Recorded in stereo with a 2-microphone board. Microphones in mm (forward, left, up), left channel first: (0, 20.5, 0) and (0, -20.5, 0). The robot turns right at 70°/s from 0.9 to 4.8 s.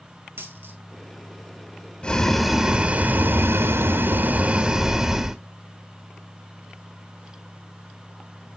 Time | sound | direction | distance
0.4 | a dropped coin | 65° right (ahead or behind) | 1.5 m
2.0 | boiling | 150° left | 0.8 m